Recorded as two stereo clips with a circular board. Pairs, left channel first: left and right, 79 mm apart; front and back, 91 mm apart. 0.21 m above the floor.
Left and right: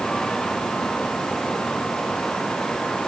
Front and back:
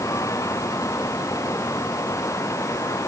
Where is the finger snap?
No finger snap in this recording.